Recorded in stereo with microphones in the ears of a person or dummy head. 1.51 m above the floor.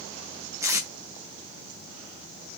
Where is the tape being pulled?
20° right (ahead or behind), 0.5 m.